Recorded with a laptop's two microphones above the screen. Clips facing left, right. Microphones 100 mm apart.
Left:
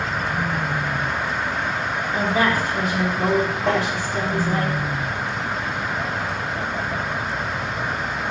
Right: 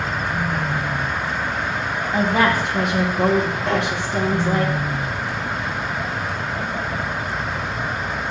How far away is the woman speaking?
About 1.5 m.